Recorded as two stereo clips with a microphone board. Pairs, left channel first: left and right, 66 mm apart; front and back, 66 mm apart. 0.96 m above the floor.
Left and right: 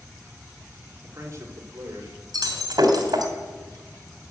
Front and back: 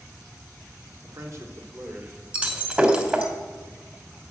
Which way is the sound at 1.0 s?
145° right.